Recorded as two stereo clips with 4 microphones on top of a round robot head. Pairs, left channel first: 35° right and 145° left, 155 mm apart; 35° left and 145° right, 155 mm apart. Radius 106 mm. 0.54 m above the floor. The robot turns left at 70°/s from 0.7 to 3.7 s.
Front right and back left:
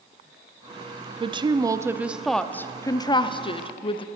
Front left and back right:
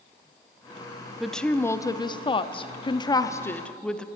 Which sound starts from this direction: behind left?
A woman speaking, at 1.2 s.